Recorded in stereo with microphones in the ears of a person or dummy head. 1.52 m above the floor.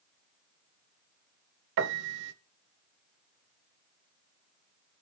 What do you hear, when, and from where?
1.8 s a piano: 65° right (ahead or behind), 0.5 m